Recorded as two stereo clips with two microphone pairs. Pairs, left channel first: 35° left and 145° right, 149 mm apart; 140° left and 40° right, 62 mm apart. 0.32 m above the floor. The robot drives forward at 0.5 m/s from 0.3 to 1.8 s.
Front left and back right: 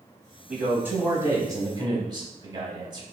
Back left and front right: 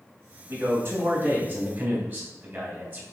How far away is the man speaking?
About 1.7 m.